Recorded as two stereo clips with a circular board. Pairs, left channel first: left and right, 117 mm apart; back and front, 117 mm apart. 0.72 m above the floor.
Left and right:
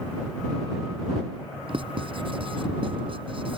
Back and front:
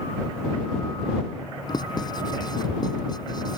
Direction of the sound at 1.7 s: 130° right.